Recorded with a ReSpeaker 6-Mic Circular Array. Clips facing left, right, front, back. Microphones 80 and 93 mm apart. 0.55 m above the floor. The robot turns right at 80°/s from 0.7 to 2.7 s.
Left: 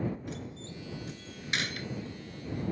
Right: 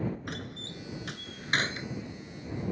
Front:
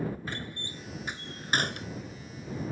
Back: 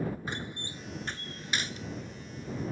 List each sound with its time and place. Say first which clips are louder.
0.3 s a door slam: right 1 dB, back 1 dB; 110° right; by 1.9 s 15° right